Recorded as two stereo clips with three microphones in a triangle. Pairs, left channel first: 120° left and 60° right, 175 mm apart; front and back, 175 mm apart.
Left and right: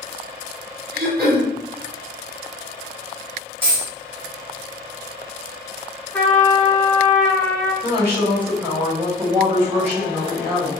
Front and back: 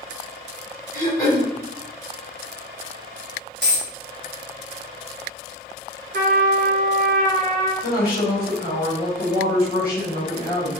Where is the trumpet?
160° right, 0.7 m.